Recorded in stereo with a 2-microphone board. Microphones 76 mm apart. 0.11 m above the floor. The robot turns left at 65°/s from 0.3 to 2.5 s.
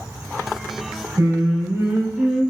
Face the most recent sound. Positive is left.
turn(degrees=-175)